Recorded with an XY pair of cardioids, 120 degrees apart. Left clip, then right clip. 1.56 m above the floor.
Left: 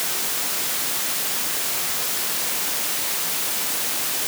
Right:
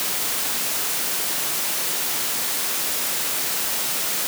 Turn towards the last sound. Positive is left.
No sound to turn to.